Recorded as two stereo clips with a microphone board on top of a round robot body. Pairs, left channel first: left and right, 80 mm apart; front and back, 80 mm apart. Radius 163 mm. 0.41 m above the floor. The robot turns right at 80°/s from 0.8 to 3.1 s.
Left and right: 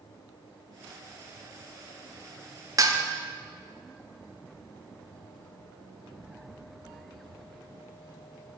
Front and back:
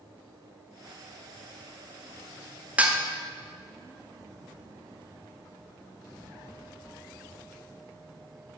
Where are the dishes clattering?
115° right, 0.8 m; by 3.0 s 95° right, 0.8 m.